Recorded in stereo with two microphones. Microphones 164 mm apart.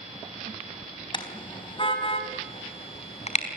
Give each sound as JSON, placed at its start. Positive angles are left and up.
{"t": 1.1, "sound": "a car horn", "side_deg": 30, "distance_m": 4.0}